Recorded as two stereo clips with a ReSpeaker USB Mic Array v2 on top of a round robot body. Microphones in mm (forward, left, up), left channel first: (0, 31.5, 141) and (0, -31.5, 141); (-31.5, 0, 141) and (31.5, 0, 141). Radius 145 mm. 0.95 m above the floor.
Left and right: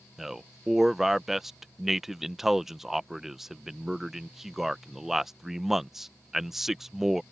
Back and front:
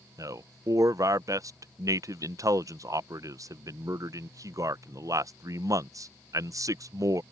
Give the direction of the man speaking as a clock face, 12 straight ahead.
12 o'clock.